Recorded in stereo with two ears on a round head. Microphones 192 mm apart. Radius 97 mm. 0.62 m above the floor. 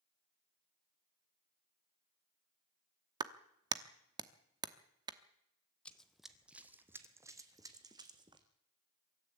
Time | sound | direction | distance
3.2 | a clap | 20° right (ahead or behind) | 1.0 m
5.8 | running footsteps | 5° left (ahead or behind) | 1.2 m